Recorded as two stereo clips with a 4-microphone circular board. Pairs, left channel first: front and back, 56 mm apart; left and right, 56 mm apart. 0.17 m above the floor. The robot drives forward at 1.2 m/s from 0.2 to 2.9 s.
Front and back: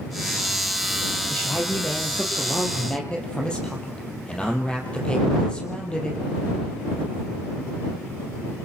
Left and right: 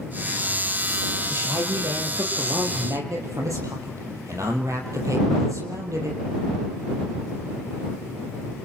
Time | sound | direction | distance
1.3 | a man speaking | 60° right | 7 m